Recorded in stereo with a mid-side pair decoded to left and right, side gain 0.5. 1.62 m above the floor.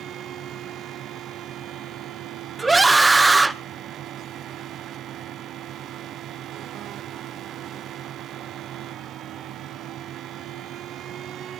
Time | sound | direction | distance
0.0 | a fan | 60° right | 0.8 m
2.6 | a scream | 15° right | 1.7 m